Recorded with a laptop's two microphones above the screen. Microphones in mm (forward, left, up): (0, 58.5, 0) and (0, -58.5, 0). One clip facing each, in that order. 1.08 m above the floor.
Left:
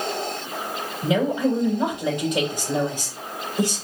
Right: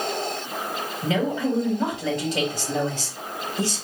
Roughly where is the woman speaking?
Centre.